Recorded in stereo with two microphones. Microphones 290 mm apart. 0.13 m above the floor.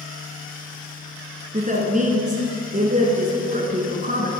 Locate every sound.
1.5 s a woman speaking: 30° right (ahead or behind), 1.2 m